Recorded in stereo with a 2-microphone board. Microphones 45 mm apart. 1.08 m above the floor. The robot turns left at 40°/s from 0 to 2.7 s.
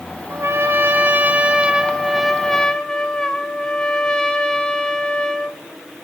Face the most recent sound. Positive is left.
turn(degrees=160)